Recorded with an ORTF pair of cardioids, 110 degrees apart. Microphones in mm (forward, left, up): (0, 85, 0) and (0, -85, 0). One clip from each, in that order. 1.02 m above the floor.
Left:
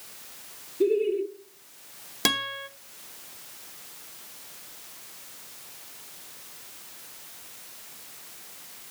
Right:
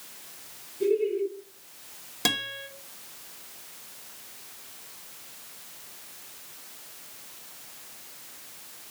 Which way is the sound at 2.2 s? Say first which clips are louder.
Left 2 dB; 25° left.